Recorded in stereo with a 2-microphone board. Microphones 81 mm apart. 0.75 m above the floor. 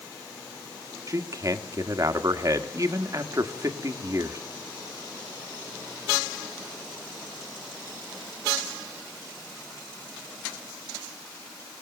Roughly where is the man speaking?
Right.